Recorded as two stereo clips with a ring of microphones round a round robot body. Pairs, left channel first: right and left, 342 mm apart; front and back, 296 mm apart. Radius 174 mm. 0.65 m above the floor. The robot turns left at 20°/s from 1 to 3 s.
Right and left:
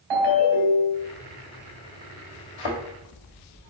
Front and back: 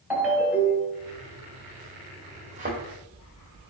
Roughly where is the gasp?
No gasp in this recording.